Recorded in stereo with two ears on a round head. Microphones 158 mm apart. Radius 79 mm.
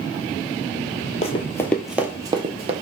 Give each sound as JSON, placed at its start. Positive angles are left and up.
{"t": 1.2, "sound": "running footsteps", "side_deg": 35, "distance_m": 0.6}